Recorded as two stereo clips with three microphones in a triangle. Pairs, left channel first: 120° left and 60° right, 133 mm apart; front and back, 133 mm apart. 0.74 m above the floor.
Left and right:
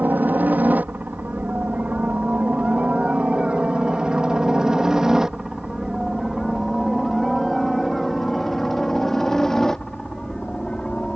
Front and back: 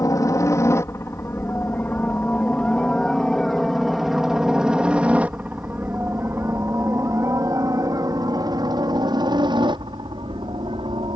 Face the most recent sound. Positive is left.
turn(degrees=-160)